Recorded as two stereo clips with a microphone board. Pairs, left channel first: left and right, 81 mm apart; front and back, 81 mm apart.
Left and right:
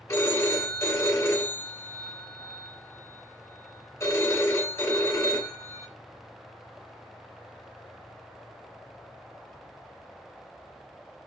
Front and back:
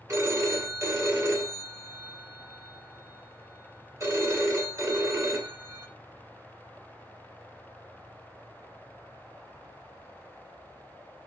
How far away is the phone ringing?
About 1.4 m.